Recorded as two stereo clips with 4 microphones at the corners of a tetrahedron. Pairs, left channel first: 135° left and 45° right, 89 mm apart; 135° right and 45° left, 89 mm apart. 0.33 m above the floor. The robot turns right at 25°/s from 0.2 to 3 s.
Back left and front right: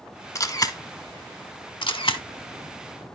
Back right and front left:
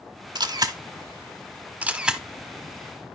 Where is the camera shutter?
80° left, 0.9 m; by 2.2 s 125° left, 0.9 m.